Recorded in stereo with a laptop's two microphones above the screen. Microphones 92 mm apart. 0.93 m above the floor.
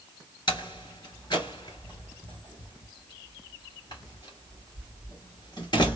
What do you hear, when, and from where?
0.5 s a door slam: 55° left (ahead or behind), 1.9 m